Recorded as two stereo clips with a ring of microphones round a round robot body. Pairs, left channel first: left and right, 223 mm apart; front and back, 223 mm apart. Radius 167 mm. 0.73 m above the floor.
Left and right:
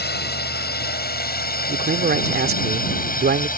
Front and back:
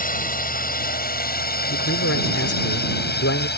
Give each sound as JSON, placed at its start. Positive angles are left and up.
{"t": 0.0, "sound": "a drone", "azimuth_deg": 50}
{"t": 1.7, "sound": "a man speaking", "azimuth_deg": -45}